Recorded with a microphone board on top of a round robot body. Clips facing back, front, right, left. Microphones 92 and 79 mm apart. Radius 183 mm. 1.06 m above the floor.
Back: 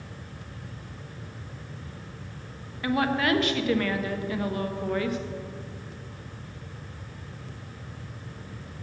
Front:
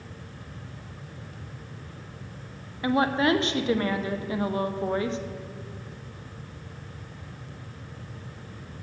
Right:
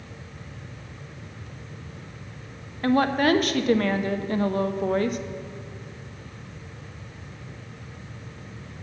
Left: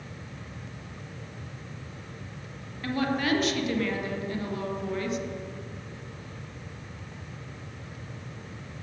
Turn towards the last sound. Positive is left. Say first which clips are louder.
# front 2 dB, right 7 dB
turn(degrees=-60)